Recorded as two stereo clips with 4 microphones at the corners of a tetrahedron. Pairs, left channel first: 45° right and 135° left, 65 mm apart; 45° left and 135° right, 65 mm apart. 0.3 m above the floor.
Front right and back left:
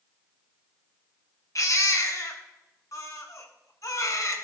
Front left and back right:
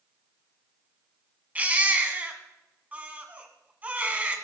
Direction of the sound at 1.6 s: 70° right.